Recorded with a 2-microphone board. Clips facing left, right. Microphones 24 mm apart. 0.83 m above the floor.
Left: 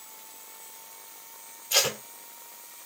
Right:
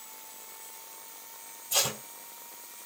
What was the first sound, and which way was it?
Tape being pulled, 70° left (ahead or behind).